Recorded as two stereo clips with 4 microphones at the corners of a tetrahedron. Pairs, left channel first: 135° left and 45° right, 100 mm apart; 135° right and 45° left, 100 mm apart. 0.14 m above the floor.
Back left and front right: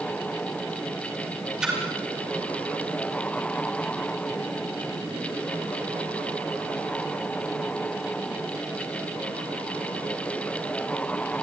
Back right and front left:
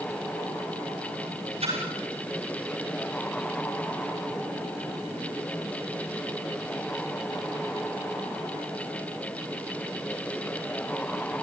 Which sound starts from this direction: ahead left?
A splash, at 1.6 s.